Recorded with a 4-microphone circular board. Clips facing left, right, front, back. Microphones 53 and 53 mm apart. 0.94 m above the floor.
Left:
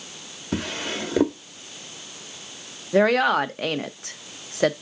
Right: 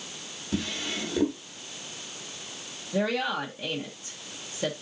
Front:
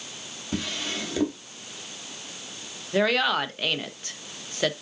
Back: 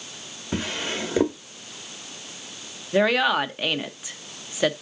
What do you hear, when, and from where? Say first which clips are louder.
0.5 s a drawer: left 3 dB, back 3 dB; 115° left, 1.0 m
2.9 s a woman speaking: left 9 dB, back 3 dB; 100° left, 0.6 m